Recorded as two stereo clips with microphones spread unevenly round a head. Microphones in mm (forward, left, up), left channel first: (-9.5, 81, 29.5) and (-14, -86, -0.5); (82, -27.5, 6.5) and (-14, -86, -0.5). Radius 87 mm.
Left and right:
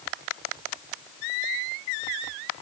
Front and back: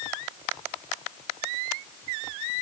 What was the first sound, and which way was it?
Only background noise.